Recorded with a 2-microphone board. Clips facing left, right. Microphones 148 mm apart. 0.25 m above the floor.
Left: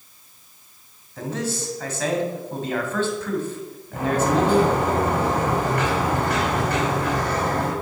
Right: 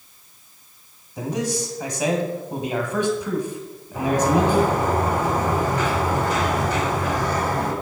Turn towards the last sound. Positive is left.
turn(degrees=60)  # may be behind; listen again after turning